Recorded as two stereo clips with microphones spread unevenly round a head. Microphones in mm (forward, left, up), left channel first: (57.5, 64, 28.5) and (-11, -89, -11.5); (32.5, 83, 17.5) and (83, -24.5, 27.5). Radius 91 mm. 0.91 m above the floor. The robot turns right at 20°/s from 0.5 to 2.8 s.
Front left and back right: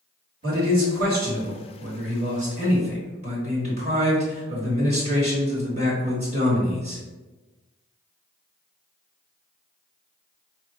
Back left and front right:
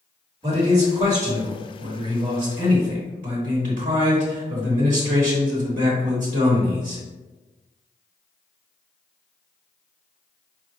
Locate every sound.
0.4 s a man speaking: 125° right, 1.3 m; by 7.0 s 80° right, 1.3 m